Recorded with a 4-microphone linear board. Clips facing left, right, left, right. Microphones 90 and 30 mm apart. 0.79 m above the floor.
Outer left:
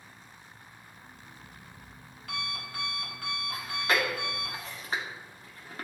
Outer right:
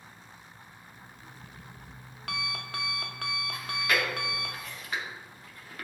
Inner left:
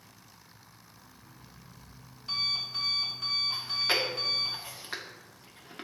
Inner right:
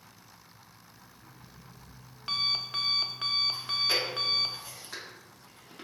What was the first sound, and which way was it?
An alarm clock, 85° right.